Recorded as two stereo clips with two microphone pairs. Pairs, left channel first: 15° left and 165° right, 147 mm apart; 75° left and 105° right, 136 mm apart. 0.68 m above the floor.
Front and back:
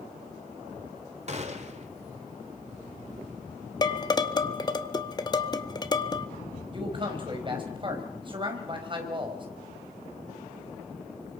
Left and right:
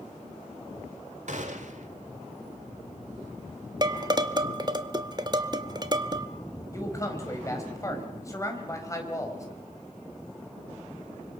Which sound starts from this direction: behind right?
A gunshot, at 1.3 s.